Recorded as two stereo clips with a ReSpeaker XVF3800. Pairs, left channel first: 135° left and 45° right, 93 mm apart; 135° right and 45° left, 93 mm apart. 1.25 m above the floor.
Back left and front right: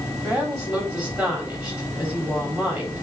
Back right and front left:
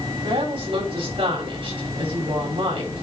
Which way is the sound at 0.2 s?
35° left.